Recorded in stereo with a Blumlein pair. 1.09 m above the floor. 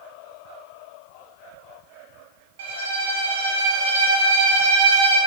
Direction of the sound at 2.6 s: 70° right.